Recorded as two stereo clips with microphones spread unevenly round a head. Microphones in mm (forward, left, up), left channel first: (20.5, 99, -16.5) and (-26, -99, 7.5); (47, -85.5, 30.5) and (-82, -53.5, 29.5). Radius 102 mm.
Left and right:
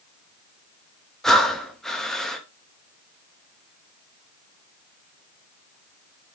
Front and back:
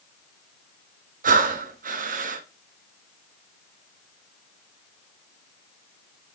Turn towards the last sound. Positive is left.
turn(degrees=170)